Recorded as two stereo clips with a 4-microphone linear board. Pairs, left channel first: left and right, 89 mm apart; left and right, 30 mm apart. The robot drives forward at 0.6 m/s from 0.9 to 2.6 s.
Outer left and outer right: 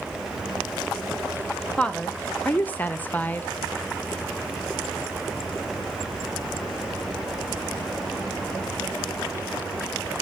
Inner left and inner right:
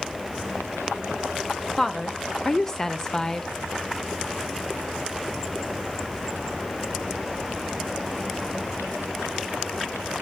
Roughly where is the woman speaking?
Centre.